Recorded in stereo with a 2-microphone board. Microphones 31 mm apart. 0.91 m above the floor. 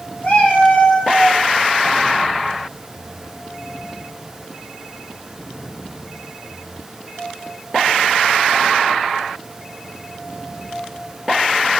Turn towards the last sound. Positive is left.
turn(degrees=50)  # may be behind; listen again after turning